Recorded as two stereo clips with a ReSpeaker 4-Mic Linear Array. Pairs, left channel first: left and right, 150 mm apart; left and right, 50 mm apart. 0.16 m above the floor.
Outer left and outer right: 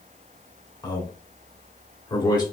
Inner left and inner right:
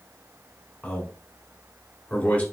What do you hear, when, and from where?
0.8 s a man speaking: 30° left (ahead or behind), 1.4 m